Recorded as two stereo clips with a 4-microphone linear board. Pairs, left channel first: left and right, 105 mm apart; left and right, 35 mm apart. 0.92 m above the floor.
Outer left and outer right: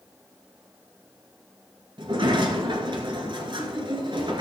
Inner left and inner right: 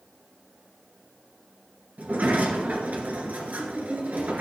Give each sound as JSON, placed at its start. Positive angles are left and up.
{"t": 2.0, "sound": "a sliding door", "side_deg": -50, "distance_m": 2.0}